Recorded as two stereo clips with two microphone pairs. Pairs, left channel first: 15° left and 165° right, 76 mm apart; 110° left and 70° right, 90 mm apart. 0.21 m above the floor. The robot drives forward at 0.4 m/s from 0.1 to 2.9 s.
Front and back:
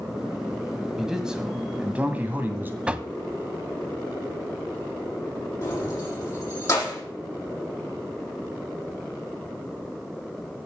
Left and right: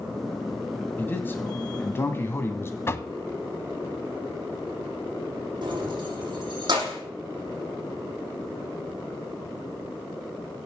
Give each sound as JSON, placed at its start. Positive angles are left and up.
{"t": 1.0, "sound": "a man speaking", "azimuth_deg": 115, "distance_m": 1.7}
{"t": 2.9, "sound": "knocking", "azimuth_deg": 130, "distance_m": 0.7}
{"t": 5.6, "sound": "keys jangling", "azimuth_deg": -35, "distance_m": 5.5}